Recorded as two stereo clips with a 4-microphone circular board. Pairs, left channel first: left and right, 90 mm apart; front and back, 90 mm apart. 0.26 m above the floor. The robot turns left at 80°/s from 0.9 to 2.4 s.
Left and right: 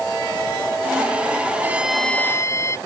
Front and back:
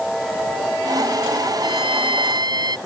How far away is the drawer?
No drawer in this recording.